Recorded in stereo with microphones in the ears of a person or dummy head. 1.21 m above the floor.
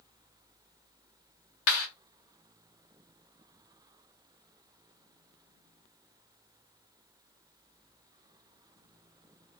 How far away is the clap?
About 2.0 m.